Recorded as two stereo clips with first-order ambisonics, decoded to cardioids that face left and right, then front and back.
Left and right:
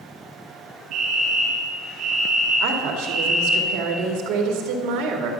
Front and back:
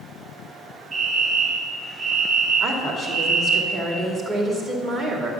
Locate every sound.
0.9 s a fire alarm: 120° right, 1.7 m
2.6 s a woman speaking: 115° right, 1.9 m